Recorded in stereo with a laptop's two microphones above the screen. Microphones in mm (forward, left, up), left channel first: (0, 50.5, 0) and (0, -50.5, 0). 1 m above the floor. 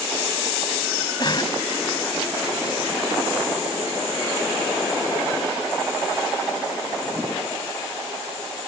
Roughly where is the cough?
Left.